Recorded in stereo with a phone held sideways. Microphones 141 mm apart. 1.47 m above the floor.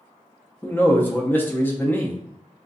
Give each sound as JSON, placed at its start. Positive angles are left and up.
{"t": 0.6, "sound": "a man speaking", "side_deg": 15, "distance_m": 0.5}